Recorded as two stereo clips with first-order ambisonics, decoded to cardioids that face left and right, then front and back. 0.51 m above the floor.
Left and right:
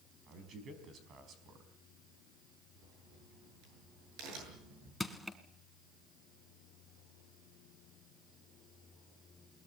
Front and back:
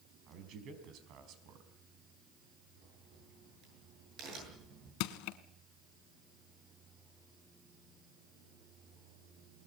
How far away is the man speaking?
About 4.5 m.